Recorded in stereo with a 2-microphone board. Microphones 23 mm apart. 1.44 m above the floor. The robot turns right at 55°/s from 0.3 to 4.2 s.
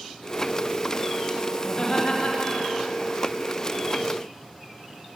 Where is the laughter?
20° left, 3 m; by 2.9 s 90° left, 3 m.